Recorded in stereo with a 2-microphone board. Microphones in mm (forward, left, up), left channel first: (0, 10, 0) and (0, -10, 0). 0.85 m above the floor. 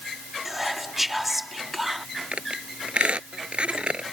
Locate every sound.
0.5 s whispering: 10° right (ahead or behind)
2.3 s a squeak: 65° right (ahead or behind)